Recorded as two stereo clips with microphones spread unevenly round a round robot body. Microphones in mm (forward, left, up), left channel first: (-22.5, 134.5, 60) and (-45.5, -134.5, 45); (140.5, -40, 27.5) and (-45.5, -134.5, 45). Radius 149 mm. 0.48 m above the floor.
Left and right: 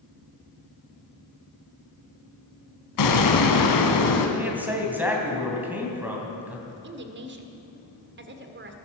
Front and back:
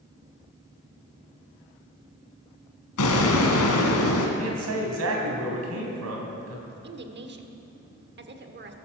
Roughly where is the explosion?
Ahead left.